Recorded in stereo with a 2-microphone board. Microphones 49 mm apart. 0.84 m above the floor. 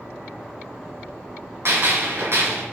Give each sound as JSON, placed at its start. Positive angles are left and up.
{"t": 1.6, "sound": "a gunshot", "side_deg": -60, "distance_m": 1.9}